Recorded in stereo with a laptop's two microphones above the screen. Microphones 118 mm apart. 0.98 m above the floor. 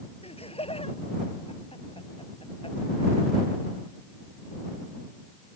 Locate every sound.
0.2 s laughter: 55° left (ahead or behind); by 3.5 s 45° left (ahead or behind)